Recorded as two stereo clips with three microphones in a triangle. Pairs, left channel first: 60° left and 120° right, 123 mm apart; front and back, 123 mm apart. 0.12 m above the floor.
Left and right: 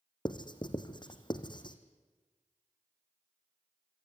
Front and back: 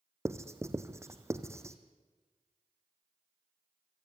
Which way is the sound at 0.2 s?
110° left.